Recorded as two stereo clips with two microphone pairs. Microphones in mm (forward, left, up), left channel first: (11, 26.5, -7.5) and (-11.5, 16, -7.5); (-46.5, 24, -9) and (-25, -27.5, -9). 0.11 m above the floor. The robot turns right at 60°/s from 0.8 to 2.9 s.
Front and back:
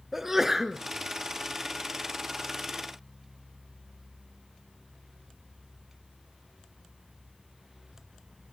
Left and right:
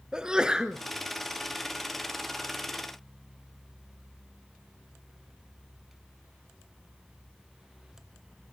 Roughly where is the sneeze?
Behind right.